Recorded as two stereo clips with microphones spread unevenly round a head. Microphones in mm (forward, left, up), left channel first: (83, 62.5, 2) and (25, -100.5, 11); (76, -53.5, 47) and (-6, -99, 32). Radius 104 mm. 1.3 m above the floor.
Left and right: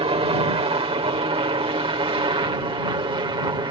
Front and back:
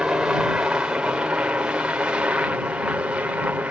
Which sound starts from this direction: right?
A helicopter, at 0.0 s.